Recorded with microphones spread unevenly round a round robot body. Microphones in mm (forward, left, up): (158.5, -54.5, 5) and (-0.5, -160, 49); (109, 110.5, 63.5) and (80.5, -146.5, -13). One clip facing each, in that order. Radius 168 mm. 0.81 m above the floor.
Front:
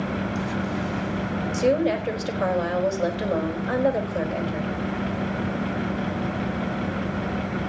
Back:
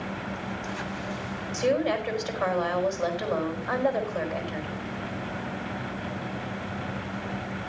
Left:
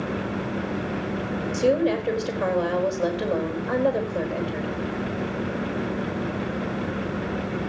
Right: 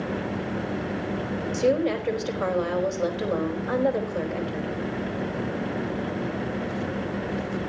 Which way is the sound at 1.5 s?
15° right.